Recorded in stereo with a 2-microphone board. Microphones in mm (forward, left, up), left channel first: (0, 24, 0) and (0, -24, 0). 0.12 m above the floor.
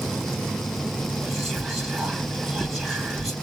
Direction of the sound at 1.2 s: Centre (ahead or behind).